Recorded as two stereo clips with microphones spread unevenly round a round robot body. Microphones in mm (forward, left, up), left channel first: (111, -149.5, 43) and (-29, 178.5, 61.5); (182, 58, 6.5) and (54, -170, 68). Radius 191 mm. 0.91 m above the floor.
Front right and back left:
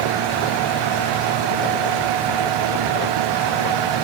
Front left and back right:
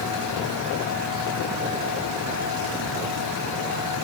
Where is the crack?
No crack in this recording.